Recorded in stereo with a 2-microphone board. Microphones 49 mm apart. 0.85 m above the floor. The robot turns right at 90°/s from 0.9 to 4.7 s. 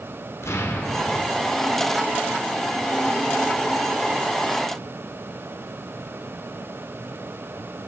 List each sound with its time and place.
0.4 s an explosion: 85° left, 1.3 m; by 1.3 s 125° left, 1.3 m